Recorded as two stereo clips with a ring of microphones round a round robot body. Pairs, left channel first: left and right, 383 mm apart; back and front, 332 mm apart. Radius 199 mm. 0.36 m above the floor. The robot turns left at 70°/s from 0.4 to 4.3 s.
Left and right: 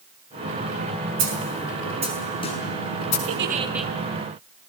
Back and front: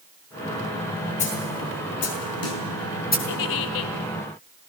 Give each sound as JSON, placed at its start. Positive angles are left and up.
{"t": 1.2, "sound": "a snare drum", "azimuth_deg": -105, "distance_m": 5.5}
{"t": 3.3, "sound": "a giggle", "azimuth_deg": -140, "distance_m": 1.4}